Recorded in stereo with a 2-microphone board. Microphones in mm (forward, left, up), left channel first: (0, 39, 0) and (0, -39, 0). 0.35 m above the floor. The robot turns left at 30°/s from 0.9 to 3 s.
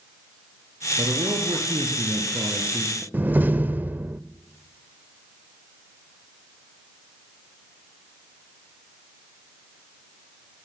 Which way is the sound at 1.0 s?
100° right.